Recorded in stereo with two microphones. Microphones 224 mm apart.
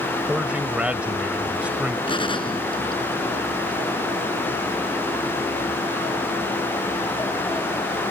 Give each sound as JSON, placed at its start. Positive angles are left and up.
{"t": 0.3, "sound": "a man speaking", "side_deg": -5}
{"t": 2.1, "sound": "a gunshot", "side_deg": 20}